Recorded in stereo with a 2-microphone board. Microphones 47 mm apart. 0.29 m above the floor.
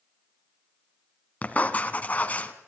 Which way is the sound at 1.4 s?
35° left (ahead or behind).